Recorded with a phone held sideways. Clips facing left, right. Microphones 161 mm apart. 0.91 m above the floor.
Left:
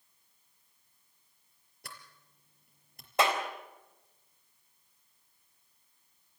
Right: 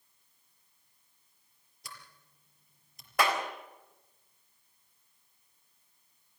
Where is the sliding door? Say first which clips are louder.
Even; 60° left (ahead or behind), 4.5 m.